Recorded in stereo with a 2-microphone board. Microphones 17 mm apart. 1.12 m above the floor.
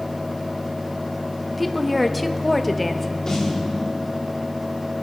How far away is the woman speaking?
About 1.0 m.